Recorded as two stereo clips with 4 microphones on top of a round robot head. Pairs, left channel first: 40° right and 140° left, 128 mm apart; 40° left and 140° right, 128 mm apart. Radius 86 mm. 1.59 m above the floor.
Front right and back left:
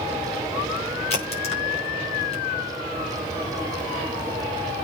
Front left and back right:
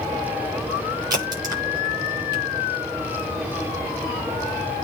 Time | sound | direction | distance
1.1 | a crack | 80° right | 6 m